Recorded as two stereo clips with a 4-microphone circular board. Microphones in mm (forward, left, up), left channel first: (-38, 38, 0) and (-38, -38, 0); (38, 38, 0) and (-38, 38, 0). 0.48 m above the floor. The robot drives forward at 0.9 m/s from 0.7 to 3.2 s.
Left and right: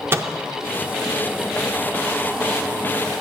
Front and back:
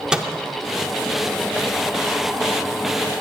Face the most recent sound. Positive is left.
turn(degrees=-175)